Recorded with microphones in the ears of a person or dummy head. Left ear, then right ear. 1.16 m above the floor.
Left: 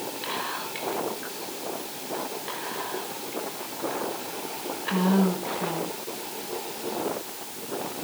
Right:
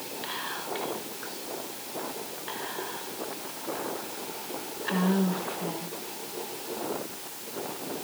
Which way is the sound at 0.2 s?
Centre (ahead or behind).